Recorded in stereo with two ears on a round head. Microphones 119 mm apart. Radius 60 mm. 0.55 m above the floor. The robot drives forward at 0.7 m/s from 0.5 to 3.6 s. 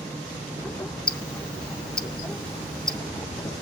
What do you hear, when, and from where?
1.1 s ticking: 5° left (ahead or behind), 0.6 m